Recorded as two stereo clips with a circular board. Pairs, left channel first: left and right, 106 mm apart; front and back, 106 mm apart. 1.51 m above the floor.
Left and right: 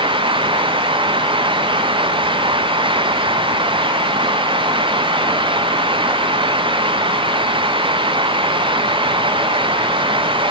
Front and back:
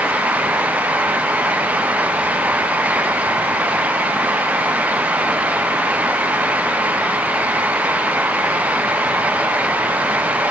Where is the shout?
I don't hear a shout.